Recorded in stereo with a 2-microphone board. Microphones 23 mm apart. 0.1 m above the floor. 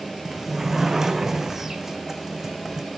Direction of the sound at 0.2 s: 20° right (ahead or behind).